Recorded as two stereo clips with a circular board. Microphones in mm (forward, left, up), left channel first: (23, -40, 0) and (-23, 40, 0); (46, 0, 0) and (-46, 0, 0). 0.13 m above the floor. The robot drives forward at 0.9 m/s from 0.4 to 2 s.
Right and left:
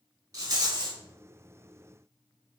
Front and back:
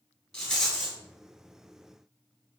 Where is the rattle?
80° left, 1.9 m; by 1.0 s 100° left, 1.9 m.